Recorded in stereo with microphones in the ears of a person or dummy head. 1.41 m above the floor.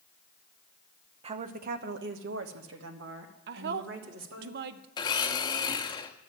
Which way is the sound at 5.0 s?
20° left (ahead or behind).